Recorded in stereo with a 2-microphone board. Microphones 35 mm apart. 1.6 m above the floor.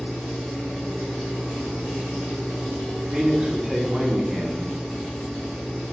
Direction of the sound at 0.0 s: 35° right (ahead or behind).